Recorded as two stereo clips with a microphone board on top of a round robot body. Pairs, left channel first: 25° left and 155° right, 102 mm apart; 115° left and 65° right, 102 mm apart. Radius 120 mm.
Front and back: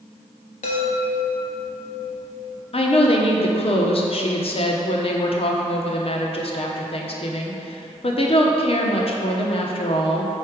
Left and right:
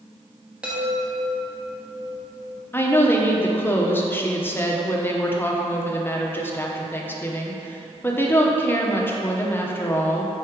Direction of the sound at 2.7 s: 45° left.